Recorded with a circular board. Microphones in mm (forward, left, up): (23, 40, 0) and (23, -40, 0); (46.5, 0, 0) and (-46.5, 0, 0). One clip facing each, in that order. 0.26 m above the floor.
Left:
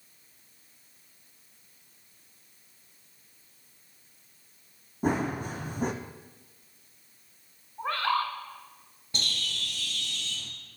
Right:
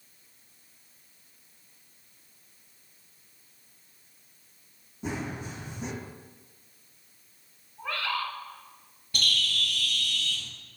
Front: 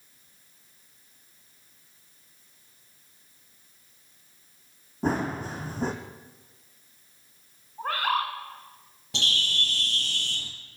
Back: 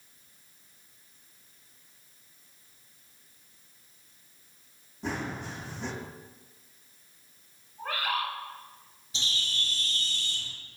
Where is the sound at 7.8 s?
40° left, 1.0 m.